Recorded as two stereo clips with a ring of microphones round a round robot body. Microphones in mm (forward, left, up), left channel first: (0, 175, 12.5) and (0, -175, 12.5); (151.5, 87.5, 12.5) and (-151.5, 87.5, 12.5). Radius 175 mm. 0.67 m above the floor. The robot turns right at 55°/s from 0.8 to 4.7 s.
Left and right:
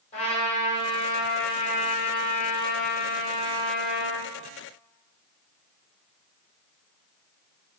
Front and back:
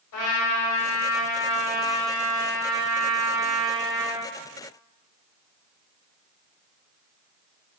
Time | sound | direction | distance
0.1 | a trumpet | 20° left | 3.5 m